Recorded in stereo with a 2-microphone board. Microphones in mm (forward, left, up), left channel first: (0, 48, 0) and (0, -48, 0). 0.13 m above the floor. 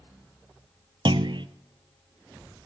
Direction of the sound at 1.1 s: 60° right (ahead or behind).